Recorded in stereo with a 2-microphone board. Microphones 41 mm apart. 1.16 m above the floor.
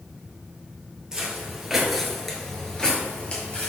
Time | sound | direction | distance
1.1 | footsteps | 15° right (ahead or behind) | 1.4 m